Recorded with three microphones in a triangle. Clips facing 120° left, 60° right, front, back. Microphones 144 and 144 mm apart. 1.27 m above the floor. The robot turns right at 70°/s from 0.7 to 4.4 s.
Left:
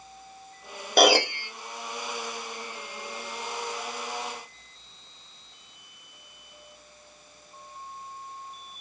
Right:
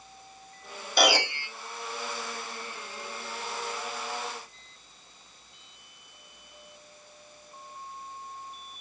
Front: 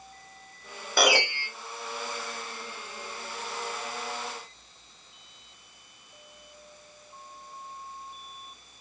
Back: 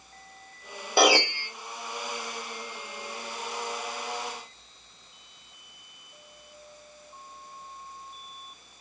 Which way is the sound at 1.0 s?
120° left.